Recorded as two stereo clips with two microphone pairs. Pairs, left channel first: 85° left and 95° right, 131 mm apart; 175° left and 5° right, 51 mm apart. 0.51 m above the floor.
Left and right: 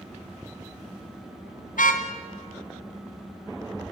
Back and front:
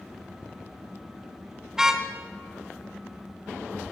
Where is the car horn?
75° left, 2 m.